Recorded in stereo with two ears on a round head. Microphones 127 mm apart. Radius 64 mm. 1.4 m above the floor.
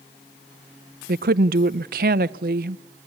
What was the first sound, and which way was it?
A woman speaking, 65° right (ahead or behind).